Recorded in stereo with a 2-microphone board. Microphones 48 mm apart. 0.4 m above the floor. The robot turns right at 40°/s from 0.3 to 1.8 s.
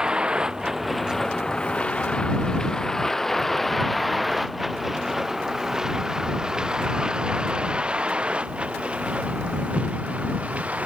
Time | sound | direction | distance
0.0 | a vehicle | 15° right (ahead or behind) | ?